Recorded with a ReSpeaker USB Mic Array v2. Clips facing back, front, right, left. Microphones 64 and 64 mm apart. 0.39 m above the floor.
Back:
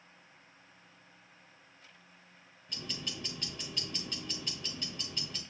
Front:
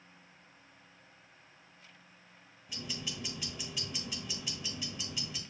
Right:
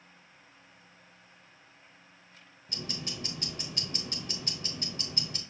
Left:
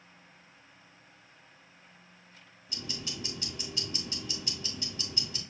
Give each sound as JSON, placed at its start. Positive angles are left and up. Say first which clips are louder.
{"t": 2.7, "sound": "ticking", "louder": "even, right 1 dB", "azimuth_deg": -85, "distance_m": 1.1}